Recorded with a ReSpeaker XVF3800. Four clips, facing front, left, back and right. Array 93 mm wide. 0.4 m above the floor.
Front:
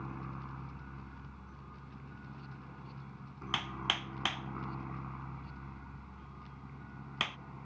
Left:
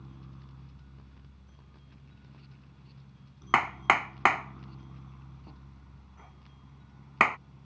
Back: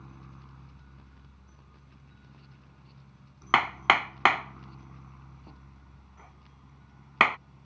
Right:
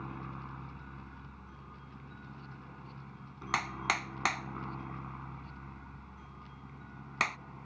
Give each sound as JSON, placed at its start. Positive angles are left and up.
{"t": 0.0, "sound": "a helicopter", "azimuth_deg": -55}
{"t": 3.5, "sound": "hammering", "azimuth_deg": 145}